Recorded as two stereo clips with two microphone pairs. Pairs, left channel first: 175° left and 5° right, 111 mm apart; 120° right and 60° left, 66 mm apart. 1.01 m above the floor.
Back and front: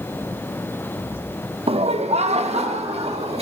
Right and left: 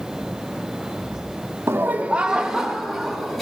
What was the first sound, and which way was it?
Laughter, 15° left.